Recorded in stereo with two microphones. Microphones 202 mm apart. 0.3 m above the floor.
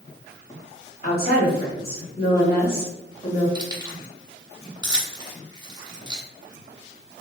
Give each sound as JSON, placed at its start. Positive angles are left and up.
{"t": 1.0, "sound": "a woman speaking", "side_deg": 50, "distance_m": 1.4}
{"t": 3.5, "sound": "keys jangling", "side_deg": -20, "distance_m": 0.7}